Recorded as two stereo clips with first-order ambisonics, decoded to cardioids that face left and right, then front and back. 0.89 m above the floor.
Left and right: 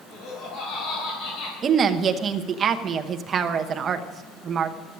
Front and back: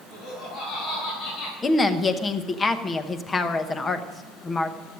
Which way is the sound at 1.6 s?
60° right.